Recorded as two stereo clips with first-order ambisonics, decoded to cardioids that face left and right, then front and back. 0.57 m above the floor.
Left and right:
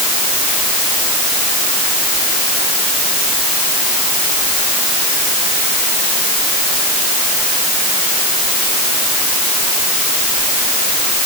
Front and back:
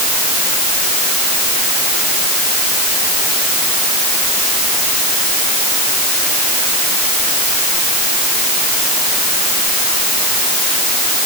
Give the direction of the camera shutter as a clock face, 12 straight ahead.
No camera shutter in this recording.